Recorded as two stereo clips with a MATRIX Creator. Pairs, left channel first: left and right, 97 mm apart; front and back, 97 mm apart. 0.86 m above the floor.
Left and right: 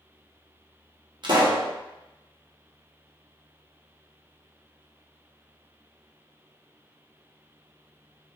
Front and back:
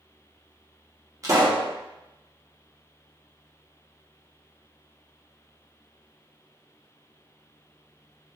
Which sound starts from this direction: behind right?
A pop, at 1.2 s.